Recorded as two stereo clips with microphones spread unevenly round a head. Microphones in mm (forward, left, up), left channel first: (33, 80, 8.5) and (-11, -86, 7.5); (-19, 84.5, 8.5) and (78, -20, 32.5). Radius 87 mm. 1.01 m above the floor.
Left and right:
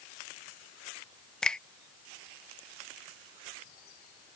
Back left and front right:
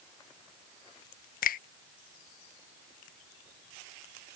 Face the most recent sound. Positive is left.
turn(degrees=160)